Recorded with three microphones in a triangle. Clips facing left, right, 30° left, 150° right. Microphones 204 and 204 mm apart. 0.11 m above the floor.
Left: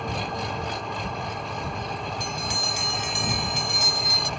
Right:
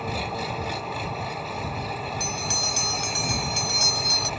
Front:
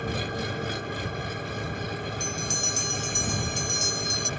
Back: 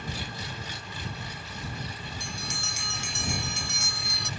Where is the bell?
135° right.